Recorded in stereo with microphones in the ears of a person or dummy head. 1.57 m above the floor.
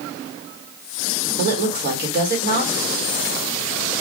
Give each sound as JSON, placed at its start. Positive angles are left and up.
{"t": 1.4, "sound": "a woman speaking", "side_deg": -55, "distance_m": 1.6}